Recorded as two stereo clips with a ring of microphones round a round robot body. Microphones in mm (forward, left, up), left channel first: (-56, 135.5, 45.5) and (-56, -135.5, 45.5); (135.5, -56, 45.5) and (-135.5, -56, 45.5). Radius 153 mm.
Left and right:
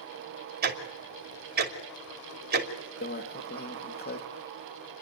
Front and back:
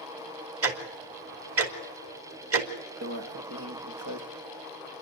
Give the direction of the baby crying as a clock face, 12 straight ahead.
I don't hear a baby crying.